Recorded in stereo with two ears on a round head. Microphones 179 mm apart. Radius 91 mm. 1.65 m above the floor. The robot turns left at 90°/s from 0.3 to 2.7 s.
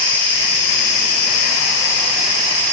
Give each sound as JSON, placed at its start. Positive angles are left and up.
{"t": 0.0, "sound": "an insect", "azimuth_deg": 170, "distance_m": 1.9}